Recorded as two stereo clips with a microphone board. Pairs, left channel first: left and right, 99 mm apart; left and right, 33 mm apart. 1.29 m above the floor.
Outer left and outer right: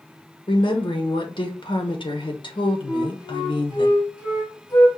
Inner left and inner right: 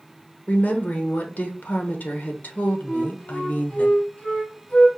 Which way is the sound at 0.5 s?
55° left (ahead or behind).